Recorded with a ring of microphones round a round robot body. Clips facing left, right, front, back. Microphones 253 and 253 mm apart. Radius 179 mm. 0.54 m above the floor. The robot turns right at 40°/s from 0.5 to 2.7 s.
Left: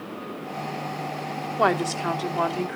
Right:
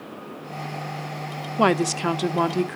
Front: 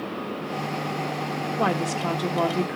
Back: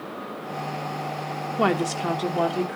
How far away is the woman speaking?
About 0.8 m.